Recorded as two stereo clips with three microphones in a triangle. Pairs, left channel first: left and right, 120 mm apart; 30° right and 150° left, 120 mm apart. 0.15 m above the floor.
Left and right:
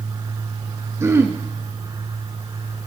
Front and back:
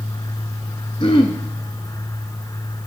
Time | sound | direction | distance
1.0 | throat clearing | 30° right | 1.0 m